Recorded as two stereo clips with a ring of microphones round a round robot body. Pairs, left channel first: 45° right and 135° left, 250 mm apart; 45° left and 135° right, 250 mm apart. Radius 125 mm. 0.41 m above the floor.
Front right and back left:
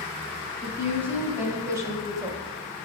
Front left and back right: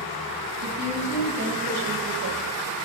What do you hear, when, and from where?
0.6 s a woman speaking: 145° right, 3.5 m; by 2.4 s 155° right, 1.6 m